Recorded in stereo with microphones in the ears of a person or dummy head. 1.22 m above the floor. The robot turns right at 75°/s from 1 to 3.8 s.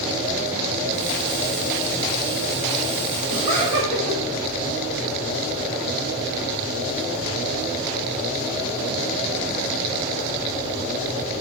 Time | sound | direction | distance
3.3 | laughter | 150° right | 2.5 m